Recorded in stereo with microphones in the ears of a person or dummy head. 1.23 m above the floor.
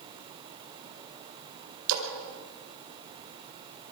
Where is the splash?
80° right, 4 m.